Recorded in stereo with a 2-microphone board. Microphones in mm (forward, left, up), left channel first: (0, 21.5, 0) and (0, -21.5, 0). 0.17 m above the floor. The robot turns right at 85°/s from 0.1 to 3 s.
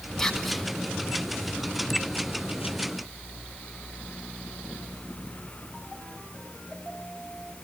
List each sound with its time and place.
0.2 s whispering: 10° left (ahead or behind), 1.5 m; by 0.7 s centre (ahead or behind), 1.5 m